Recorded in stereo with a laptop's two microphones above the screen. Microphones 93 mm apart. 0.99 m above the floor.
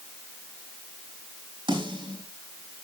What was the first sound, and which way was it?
A snare drum, 55° right (ahead or behind).